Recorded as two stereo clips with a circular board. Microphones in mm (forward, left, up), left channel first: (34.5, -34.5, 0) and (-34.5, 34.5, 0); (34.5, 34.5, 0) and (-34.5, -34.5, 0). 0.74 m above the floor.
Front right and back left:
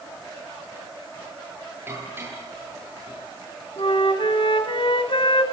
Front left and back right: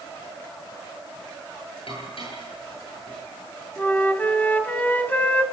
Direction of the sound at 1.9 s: 65° left.